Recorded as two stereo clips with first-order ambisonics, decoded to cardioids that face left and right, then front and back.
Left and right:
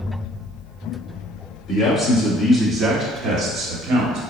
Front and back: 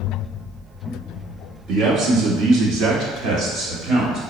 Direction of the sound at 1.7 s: 150° left.